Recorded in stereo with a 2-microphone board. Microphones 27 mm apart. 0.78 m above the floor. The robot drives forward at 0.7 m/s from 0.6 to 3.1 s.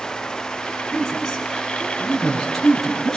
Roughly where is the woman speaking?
Centre.